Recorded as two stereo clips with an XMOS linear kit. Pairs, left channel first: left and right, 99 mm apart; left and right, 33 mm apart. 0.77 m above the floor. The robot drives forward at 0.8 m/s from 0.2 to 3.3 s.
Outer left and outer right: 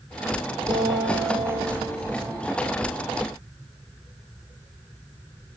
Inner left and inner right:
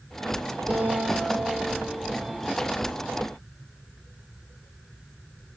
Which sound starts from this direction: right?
A guitar, at 0.7 s.